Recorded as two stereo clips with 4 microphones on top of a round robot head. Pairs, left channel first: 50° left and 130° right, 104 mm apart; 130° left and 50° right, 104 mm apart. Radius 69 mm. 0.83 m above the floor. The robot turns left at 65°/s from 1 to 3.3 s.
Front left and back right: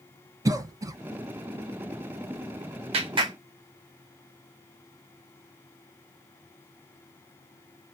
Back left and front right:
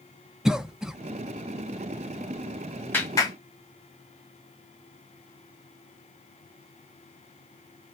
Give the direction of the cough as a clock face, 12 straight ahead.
4 o'clock.